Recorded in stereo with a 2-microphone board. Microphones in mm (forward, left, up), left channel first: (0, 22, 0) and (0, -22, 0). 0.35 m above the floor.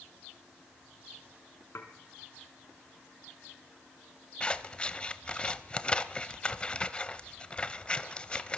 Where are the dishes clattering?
75° left (ahead or behind), 3 m.